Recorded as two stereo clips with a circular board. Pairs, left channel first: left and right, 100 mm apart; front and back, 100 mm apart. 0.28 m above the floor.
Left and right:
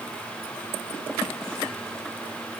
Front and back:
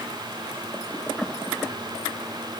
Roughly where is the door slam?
No door slam in this recording.